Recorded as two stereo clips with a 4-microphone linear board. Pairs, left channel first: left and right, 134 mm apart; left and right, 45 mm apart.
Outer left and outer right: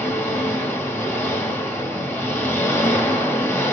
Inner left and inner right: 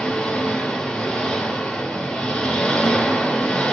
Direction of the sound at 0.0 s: 15° left (ahead or behind).